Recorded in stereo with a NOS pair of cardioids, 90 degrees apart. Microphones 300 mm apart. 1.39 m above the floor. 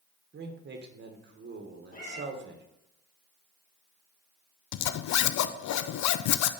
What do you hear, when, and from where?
0.3 s a man speaking: 35° right, 1.5 m
1.9 s a cat meowing: 30° left, 2 m
4.7 s a zipper: 70° left, 0.5 m